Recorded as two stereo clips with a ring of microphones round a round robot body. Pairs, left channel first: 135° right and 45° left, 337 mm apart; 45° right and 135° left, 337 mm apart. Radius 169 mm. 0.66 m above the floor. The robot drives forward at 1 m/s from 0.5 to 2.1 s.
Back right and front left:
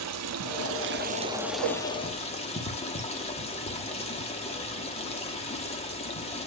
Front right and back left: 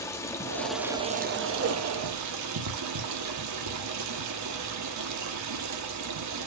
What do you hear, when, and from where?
0.0 s running water: 35° left, 1.1 m; by 6.5 s 155° left, 1.3 m
1.6 s a whoosh: 75° left, 1.3 m; by 1.8 s 85° left, 1.3 m